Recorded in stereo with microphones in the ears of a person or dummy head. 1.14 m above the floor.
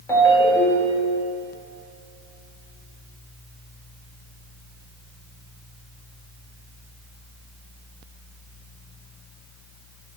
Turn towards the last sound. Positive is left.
turn(degrees=15)  # may be behind; listen again after turning